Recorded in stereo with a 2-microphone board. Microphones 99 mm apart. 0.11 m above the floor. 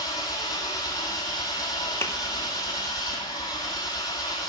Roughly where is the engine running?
Left.